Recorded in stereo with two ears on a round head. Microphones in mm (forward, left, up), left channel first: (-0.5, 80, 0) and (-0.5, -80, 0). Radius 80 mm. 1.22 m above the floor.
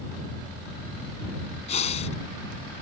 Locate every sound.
1.7 s breathing: 40° left (ahead or behind)